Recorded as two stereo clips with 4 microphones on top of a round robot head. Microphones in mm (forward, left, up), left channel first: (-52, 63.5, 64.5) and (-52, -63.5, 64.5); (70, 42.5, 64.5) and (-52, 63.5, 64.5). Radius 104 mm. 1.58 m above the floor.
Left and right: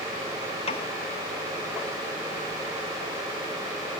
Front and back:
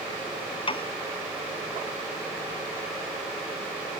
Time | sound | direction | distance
0.7 | a piano | 35° left | ?